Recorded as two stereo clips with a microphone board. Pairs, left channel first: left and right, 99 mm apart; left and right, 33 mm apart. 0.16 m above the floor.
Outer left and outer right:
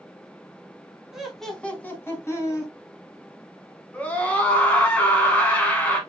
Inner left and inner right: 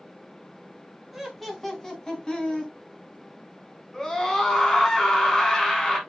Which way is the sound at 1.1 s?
5° right (ahead or behind).